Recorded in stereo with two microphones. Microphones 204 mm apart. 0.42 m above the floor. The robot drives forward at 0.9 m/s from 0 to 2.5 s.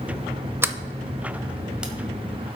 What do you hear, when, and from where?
0.6 s a sliding door: 10° right (ahead or behind), 0.5 m; by 1.9 s 5° right (ahead or behind), 1.5 m